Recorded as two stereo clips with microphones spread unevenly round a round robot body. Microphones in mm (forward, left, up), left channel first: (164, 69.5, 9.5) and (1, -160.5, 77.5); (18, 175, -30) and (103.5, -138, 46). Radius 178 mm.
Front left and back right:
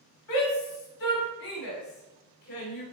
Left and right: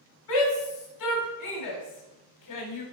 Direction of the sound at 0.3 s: 70° left.